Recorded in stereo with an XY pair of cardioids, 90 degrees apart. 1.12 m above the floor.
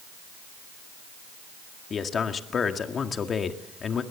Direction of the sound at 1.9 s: 50° left.